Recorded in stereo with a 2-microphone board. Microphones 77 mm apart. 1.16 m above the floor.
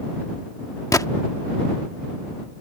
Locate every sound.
0.9 s a gunshot: 50° left (ahead or behind)